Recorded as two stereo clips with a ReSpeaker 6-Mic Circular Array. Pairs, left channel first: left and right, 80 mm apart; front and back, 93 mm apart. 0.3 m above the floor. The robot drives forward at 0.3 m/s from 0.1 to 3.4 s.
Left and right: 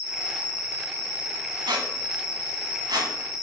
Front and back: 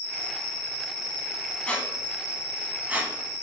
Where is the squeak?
75° right, 0.7 m; by 3.4 s 120° right, 0.7 m.